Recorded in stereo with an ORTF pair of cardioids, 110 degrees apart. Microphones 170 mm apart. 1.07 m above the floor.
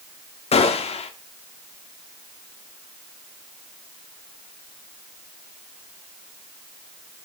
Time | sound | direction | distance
0.5 | a gunshot | 40° left | 2.0 m